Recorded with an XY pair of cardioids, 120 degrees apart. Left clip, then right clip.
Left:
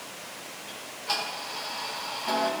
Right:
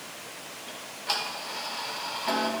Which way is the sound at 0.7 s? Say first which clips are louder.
Even; 20° right.